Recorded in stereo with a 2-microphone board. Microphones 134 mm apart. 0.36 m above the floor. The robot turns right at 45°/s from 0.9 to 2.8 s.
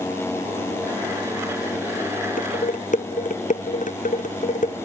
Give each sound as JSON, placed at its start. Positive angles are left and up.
{"t": 2.4, "sound": "dishes clattering", "side_deg": 90}